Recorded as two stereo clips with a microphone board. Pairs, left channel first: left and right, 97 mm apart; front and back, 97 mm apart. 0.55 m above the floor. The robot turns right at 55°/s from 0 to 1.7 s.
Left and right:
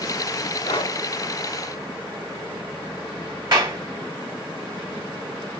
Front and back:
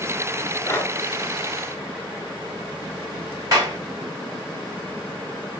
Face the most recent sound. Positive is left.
turn(degrees=-130)